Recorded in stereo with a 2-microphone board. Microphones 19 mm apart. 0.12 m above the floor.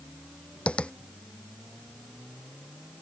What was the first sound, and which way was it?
Tapping, 70° left (ahead or behind).